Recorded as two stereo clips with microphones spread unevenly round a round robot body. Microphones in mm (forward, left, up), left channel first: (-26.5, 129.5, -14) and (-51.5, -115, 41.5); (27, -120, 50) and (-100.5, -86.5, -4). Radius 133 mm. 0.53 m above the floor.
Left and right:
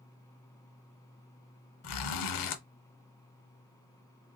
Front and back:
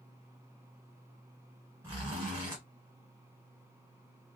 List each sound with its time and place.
1.8 s a zipper: 75° left, 0.6 m